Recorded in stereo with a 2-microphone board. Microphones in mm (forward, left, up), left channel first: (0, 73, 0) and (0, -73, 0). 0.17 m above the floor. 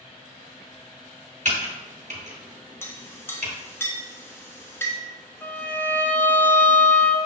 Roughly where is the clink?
Centre.